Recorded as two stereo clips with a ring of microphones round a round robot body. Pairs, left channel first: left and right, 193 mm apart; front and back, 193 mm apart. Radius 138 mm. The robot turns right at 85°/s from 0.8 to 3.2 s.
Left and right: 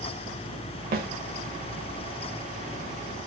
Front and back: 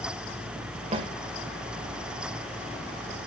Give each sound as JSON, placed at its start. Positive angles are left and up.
{"t": 0.9, "sound": "a snare drum", "azimuth_deg": -125, "distance_m": 1.2}